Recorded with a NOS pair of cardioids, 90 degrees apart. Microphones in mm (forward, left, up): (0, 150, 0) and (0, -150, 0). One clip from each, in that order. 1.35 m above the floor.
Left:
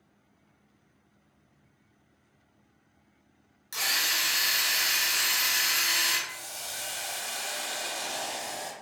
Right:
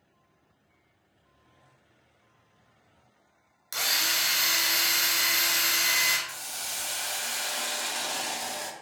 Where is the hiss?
30° right, 0.5 m.